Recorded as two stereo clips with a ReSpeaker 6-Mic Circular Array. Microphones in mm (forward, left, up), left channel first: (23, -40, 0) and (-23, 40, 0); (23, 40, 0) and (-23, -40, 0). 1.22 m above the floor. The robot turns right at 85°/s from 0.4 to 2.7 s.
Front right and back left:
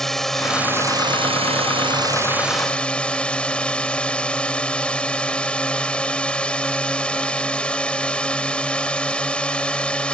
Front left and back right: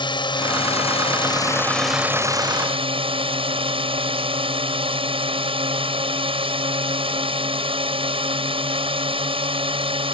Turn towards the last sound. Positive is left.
turn(degrees=-140)